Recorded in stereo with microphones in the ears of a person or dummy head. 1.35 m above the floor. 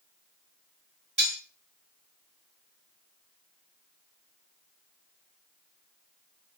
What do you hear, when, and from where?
1.2 s cutlery clinking: 30° right (ahead or behind), 1.8 m